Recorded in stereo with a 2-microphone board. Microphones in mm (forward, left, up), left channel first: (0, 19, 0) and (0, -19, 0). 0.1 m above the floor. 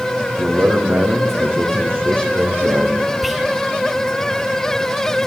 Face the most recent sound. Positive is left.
turn(degrees=-5)  # may be behind; listen again after turning